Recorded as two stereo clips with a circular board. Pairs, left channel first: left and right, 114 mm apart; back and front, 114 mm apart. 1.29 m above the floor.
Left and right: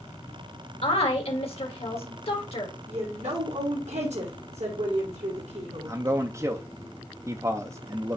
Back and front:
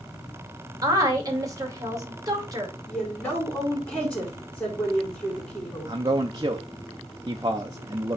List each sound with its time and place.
0.8 s a woman speaking: 60° left, 2 m
2.9 s a woman speaking: 100° right, 4 m
5.9 s a man speaking: 35° right, 0.7 m